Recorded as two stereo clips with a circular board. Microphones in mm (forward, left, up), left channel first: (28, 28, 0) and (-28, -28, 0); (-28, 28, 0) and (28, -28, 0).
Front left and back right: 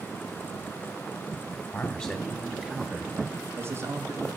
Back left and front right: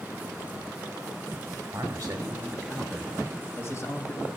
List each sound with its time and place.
1.7 s a man speaking: 10° right, 1.3 m; by 4.3 s straight behind, 1.8 m